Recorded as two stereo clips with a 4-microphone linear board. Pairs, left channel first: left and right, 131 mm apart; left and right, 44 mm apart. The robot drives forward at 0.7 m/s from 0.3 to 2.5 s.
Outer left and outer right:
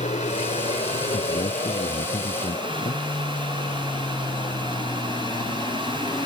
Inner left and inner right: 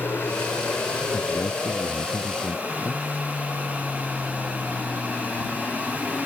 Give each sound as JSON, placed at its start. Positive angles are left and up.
{"t": 0.0, "sound": "an aircraft", "side_deg": 60}
{"t": 1.1, "sound": "a man speaking", "side_deg": 70}